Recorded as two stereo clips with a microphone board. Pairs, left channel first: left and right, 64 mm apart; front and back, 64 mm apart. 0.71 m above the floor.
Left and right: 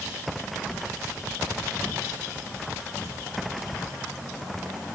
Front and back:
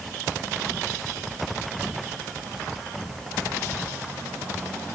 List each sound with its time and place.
Only background noise.